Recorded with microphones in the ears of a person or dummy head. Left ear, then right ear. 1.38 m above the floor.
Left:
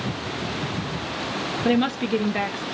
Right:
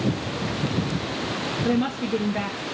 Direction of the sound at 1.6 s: 20° left (ahead or behind).